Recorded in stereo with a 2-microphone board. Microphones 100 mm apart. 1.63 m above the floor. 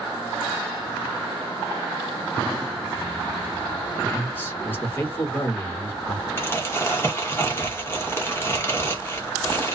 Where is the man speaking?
20° left (ahead or behind), 1.2 m.